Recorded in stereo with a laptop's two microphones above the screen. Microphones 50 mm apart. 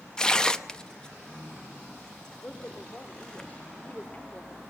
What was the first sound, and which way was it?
Tearing paper, 15° left (ahead or behind).